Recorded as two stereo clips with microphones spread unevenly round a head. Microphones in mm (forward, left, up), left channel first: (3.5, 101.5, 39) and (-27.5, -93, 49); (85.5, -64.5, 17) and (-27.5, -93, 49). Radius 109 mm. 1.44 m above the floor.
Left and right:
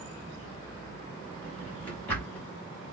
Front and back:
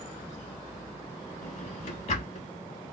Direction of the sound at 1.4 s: 5° right.